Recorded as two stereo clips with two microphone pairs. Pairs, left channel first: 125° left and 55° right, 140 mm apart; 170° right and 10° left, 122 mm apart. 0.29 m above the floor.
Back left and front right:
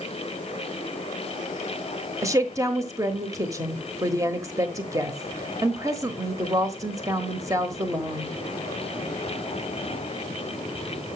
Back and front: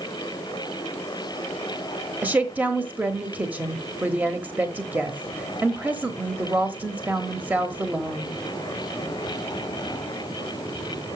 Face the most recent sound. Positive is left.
turn(degrees=-45)